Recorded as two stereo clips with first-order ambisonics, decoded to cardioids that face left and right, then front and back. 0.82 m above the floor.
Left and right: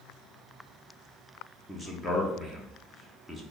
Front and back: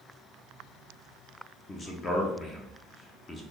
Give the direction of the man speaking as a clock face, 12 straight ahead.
11 o'clock.